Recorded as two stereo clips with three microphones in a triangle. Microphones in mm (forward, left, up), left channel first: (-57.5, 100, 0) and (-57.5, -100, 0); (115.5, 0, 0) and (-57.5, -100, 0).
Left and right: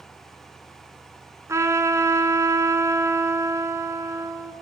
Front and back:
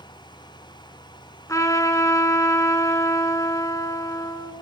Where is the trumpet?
30° right, 1.4 m.